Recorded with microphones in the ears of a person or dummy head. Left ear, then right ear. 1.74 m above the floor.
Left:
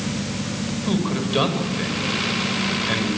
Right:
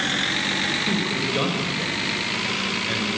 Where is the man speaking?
20° left (ahead or behind), 6 m.